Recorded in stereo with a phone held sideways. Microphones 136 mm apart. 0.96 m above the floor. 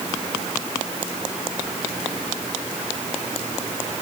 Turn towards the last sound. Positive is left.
No sound to turn to.